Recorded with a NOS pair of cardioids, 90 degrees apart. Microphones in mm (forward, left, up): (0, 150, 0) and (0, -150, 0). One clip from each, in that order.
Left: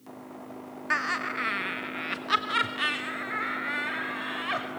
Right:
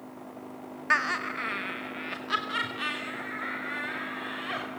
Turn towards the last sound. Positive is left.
turn(degrees=30)